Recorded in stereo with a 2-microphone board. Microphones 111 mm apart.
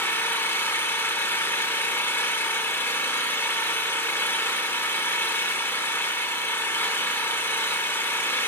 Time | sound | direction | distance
0.0 | an engine running | 20° left (ahead or behind) | 0.8 m